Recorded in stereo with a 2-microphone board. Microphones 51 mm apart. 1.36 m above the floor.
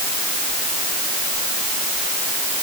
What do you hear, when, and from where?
Only background noise.